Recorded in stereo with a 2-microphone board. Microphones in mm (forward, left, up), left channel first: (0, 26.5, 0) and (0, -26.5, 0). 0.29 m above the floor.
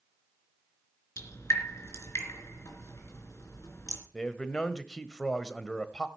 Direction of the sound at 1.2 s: 75° left (ahead or behind).